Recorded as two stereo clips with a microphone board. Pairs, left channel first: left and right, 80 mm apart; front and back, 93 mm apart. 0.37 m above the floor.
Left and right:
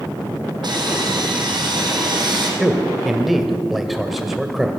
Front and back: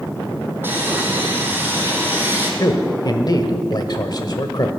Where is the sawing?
115° right, 2.5 m.